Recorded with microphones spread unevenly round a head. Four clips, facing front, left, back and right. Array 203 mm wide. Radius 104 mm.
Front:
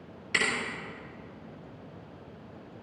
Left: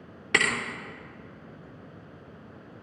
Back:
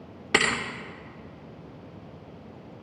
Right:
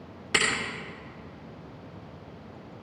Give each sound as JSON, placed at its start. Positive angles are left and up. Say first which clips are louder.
{"t": 0.3, "sound": "a thud", "louder": "left 1 dB, back 6 dB", "azimuth_deg": 160, "distance_m": 1.3}